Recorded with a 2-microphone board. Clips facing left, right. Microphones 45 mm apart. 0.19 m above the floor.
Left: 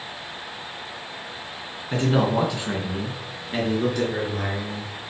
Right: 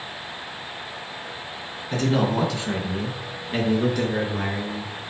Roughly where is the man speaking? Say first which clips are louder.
Left 1 dB; left.